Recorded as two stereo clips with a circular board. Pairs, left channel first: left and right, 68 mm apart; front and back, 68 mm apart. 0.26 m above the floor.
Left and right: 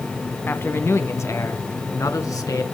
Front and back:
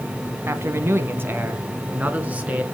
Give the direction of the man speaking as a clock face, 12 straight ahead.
7 o'clock.